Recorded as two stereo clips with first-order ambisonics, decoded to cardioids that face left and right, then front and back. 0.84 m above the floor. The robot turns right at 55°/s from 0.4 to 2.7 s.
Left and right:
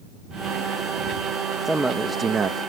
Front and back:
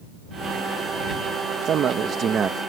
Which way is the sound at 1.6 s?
Straight behind.